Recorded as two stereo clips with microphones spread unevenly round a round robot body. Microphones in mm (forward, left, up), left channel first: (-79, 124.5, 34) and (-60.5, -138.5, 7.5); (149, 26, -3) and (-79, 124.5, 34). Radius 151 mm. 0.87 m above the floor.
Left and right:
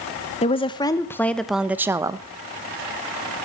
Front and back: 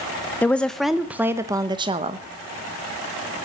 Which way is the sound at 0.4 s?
40° left.